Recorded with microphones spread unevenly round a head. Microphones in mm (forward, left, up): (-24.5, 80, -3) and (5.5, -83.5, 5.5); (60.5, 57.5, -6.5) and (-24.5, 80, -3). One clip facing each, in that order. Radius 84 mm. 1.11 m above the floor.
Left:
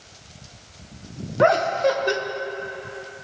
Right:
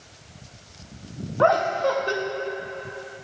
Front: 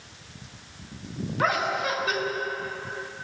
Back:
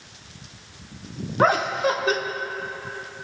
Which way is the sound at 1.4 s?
145° left.